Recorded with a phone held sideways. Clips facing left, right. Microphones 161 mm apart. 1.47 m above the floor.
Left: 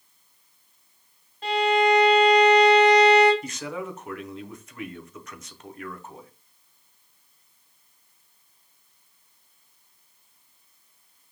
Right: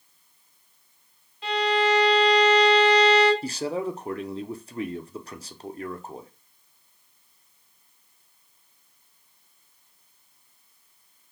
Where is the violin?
40° left (ahead or behind), 2.5 m.